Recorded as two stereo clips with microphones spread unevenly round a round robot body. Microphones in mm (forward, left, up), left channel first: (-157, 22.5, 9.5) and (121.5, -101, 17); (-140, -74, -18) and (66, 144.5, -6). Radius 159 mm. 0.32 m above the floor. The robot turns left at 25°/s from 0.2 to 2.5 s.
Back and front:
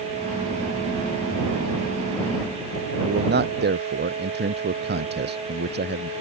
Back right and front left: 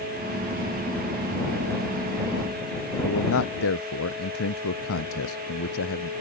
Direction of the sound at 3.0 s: 80° right.